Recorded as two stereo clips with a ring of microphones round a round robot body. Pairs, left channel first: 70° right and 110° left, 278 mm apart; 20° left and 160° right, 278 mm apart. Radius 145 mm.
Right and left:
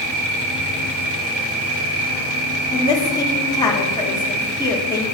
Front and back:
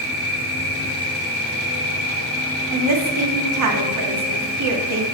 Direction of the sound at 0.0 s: 95° left.